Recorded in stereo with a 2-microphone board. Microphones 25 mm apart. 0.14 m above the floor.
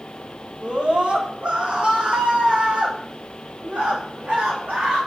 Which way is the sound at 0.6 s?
45° right (ahead or behind).